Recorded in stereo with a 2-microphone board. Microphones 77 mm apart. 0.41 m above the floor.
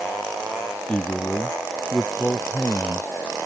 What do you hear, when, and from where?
0.9 s a man speaking: 15° left (ahead or behind); by 3.1 s 20° left (ahead or behind)